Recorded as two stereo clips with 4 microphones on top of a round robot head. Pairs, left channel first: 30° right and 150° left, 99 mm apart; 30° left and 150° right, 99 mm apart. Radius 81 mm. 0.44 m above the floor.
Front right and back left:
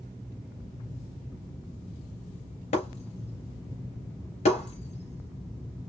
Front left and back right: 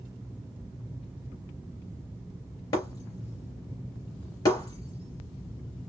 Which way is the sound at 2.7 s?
20° right.